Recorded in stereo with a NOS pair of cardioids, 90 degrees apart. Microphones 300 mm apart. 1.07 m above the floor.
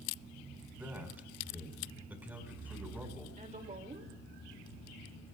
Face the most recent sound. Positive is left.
turn(degrees=-25)